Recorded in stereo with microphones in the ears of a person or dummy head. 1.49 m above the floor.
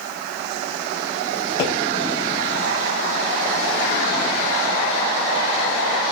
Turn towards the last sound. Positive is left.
turn(degrees=30)  # may be behind; listen again after turning